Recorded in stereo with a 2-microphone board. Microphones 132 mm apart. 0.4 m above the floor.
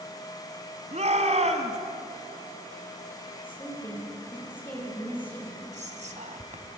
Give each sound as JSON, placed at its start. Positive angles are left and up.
{"t": 0.9, "sound": "a shout", "side_deg": -60, "distance_m": 3.0}
{"t": 3.4, "sound": "a woman speaking", "side_deg": 15, "distance_m": 9.5}
{"t": 5.7, "sound": "whispering", "side_deg": -65, "distance_m": 2.5}